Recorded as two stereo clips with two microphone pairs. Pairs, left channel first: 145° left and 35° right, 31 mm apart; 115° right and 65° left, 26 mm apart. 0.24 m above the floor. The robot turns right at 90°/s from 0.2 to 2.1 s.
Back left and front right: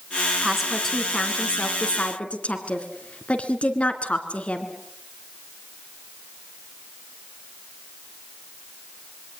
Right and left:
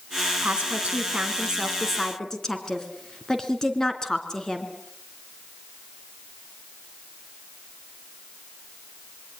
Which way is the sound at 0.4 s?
30° left.